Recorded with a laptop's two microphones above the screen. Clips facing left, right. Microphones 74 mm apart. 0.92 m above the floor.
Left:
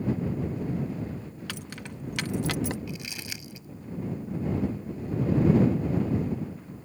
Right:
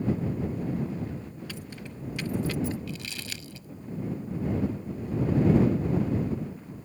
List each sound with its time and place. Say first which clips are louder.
1.5 s keys jangling: left 1 dB; 70° left (ahead or behind)
2.9 s crumpling: even; 20° left (ahead or behind)